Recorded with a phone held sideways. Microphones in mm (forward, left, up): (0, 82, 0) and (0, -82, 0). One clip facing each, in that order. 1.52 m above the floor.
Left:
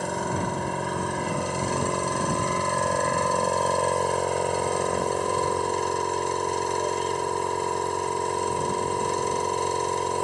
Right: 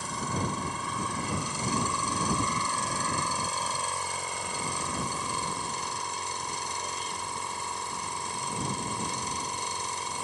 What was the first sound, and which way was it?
A machine running, 65° left (ahead or behind).